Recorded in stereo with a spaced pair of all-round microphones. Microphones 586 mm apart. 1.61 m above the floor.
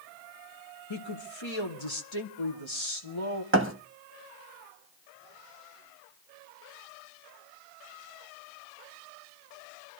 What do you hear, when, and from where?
0.9 s a woman speaking: 50° left (ahead or behind), 1.1 m
3.5 s a thud: 20° right (ahead or behind), 1.3 m